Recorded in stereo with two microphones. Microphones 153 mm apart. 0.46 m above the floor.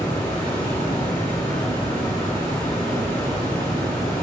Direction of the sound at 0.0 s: 10° left (ahead or behind).